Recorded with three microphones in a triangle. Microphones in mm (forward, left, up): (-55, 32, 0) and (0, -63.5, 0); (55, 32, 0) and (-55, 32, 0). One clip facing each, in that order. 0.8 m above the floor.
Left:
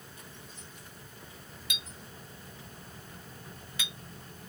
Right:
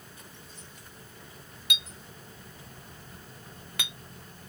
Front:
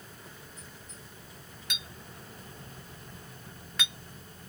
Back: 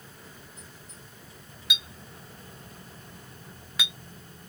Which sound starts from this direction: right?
A clink, at 1.7 s.